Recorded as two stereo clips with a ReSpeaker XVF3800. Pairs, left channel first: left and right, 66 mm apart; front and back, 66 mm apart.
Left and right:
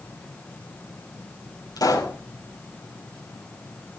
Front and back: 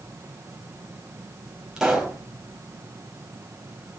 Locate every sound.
1.8 s a pop: 100° left, 4.5 m